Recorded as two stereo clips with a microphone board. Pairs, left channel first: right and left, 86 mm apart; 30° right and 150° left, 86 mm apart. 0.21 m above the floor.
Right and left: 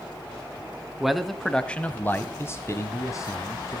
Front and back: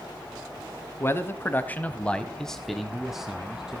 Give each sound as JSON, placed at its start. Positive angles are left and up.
{"t": 1.0, "sound": "a man speaking", "azimuth_deg": 5, "distance_m": 1.8}